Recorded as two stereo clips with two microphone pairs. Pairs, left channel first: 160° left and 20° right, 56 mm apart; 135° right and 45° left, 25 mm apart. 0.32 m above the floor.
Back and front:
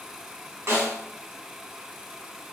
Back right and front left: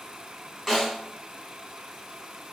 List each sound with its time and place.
0.7 s a snare drum: 50° right, 1.8 m